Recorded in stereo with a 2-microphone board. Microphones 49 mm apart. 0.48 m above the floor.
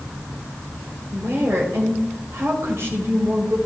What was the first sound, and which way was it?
A woman speaking, 55° right (ahead or behind).